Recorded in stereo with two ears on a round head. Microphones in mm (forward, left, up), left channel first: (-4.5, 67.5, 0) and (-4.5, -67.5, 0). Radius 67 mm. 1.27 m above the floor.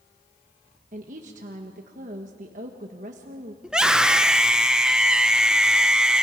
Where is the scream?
5° right (ahead or behind), 1.1 m.